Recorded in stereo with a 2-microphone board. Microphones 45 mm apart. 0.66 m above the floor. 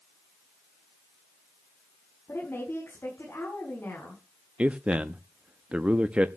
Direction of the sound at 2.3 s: 60° left (ahead or behind).